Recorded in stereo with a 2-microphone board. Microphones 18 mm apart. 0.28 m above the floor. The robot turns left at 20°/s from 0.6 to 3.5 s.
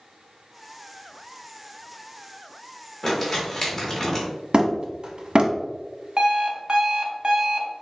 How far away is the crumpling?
About 1.4 m.